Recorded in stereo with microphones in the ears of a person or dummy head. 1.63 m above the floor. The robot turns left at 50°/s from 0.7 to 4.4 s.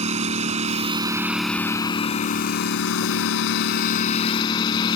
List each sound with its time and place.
0.0 s a lawn mower: 145° right; by 5.0 s 30° left